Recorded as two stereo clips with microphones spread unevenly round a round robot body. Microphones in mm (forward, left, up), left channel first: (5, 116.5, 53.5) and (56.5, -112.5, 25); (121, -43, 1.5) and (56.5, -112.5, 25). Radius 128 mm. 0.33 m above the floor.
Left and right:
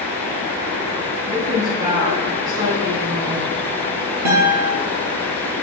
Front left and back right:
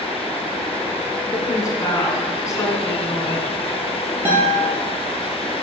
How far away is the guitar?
About 3.5 m.